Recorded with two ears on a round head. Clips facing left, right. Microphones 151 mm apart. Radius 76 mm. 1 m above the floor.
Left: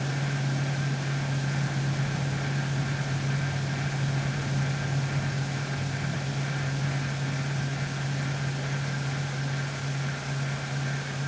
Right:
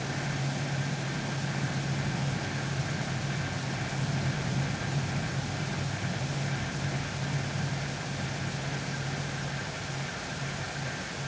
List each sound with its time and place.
Only background noise.